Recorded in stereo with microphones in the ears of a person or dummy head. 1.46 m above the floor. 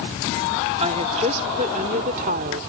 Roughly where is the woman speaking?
Right.